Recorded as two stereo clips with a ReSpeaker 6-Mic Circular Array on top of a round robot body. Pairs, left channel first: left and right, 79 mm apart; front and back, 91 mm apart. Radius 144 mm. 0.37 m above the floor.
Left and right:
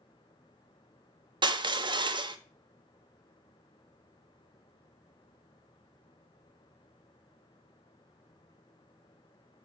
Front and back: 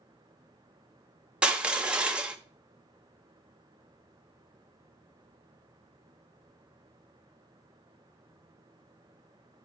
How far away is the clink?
No clink in this recording.